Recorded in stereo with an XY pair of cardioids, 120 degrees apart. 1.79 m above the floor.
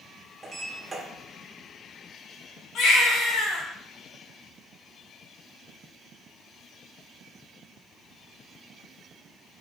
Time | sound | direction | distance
0.4 | a sliding door | 15° right | 2.0 m
2.8 | a baby crying | 65° left | 3 m